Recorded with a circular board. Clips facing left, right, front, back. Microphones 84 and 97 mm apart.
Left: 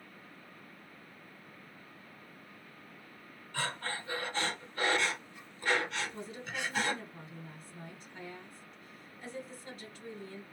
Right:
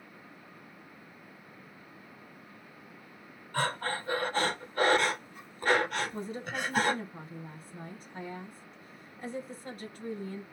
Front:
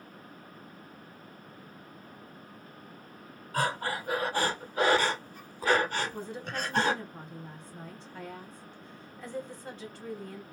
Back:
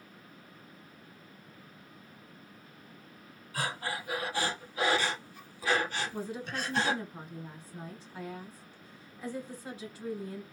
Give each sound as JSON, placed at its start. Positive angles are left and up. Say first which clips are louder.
{"t": 3.5, "sound": "breathing", "louder": "right 6 dB, front 5 dB", "azimuth_deg": -45, "distance_m": 0.9}
{"t": 6.1, "sound": "a woman speaking", "louder": "right 5 dB, even", "azimuth_deg": -105, "distance_m": 2.0}